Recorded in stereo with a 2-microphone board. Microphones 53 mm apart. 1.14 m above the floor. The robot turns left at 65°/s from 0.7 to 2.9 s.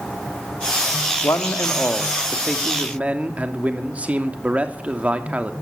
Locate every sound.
1.2 s a man speaking: 85° left, 2.5 m; by 5.5 s 25° right, 2.5 m